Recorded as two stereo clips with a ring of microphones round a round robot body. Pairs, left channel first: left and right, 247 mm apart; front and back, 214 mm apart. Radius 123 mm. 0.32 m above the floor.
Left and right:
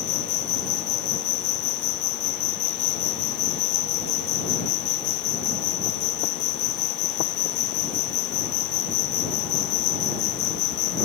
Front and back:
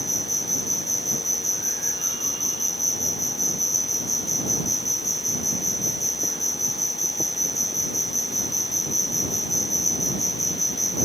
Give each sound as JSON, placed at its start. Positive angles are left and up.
{"t": 0.0, "sound": "an insect", "azimuth_deg": 75}